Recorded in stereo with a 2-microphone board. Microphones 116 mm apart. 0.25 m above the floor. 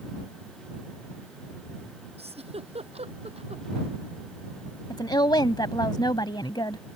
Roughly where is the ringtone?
I don't hear a ringtone.